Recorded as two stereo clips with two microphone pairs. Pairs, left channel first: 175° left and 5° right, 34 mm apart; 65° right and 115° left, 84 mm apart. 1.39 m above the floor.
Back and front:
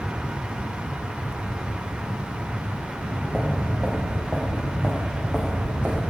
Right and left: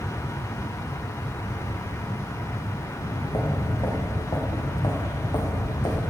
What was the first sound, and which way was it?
Footsteps, 85° right.